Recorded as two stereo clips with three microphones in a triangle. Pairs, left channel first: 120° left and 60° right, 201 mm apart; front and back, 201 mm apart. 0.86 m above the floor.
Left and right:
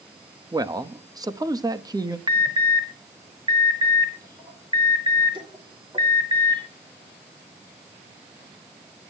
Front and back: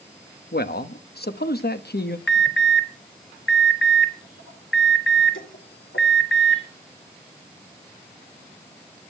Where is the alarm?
10° left, 3 m.